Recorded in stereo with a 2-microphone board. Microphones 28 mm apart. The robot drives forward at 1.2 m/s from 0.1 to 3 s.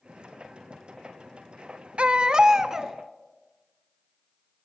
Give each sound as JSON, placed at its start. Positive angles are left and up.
{"t": 2.0, "sound": "a baby crying", "side_deg": -45, "distance_m": 0.6}